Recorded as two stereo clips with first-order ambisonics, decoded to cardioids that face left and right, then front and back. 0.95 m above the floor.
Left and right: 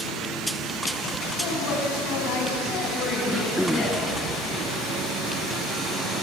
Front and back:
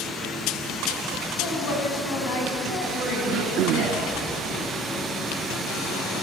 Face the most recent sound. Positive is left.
turn(degrees=180)